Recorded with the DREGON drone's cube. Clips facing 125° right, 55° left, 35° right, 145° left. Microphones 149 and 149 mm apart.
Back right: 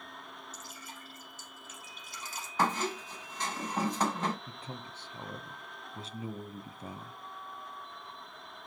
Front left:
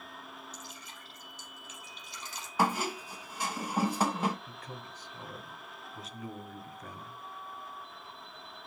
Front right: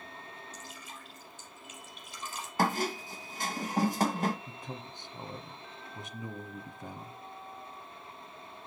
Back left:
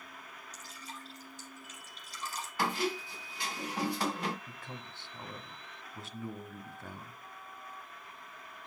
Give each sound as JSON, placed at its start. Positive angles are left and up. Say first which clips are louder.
{"t": 0.5, "sound": "dripping", "louder": "even, front right 1 dB", "azimuth_deg": -165, "distance_m": 4.0}
{"t": 2.6, "sound": "a squeak", "louder": "front left 1 dB, front right 3 dB", "azimuth_deg": -20, "distance_m": 1.1}
{"t": 4.5, "sound": "a man speaking", "louder": "back right 1 dB, front right 4 dB", "azimuth_deg": -95, "distance_m": 1.1}